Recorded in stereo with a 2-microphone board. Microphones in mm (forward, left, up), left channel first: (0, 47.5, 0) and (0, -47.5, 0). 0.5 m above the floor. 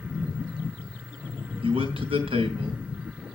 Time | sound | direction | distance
1.6 | a man speaking | 75° right (ahead or behind) | 4.5 m